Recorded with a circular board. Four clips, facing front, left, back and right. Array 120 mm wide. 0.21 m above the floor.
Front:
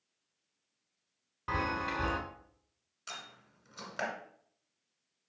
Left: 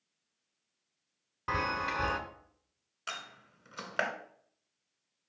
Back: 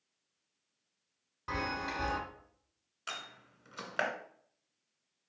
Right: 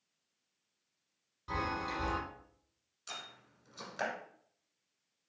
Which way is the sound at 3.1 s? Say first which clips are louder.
Left 5 dB, back 3 dB; 115° left.